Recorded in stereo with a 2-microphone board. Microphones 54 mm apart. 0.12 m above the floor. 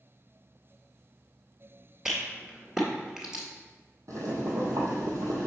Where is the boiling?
70° right (ahead or behind), 1.9 m.